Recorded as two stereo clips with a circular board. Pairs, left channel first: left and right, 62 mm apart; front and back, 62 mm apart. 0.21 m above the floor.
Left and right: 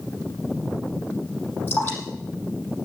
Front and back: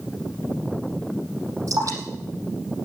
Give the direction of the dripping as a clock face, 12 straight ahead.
7 o'clock.